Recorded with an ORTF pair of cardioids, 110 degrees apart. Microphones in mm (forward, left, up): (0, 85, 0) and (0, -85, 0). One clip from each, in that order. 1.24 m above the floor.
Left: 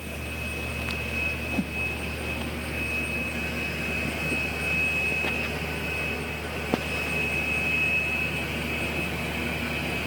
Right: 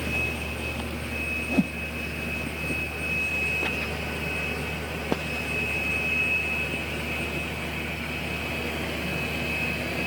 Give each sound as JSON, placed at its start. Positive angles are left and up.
{"t": 1.5, "sound": "a whoosh", "azimuth_deg": -35}